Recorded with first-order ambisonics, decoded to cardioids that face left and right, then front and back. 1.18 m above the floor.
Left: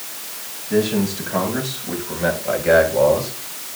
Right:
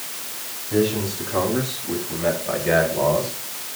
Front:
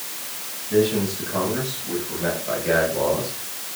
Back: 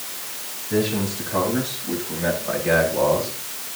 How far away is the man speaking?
About 9.5 m.